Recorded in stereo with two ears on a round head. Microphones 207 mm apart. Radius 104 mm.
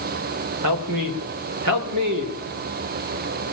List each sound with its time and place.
0.6 s a man speaking: 85° right, 3.5 m